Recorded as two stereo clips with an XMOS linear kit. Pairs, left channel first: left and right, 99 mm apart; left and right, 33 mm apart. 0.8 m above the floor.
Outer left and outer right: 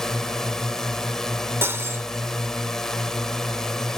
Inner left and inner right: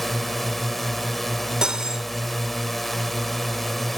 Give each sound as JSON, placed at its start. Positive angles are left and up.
{"t": 0.0, "sound": "a drone", "side_deg": 5}
{"t": 1.6, "sound": "cutlery clinking", "side_deg": -25}